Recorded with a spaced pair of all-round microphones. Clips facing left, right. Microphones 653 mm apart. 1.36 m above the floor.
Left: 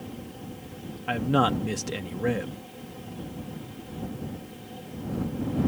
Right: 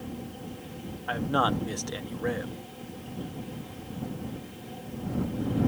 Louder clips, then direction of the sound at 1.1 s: Left 4 dB; 55° left (ahead or behind).